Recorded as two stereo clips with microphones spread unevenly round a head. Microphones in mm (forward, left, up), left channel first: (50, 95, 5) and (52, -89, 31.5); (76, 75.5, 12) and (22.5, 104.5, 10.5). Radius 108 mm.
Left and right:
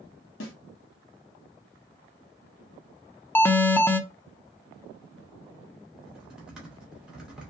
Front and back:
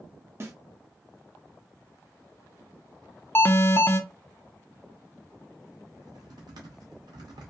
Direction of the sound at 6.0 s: 175° right.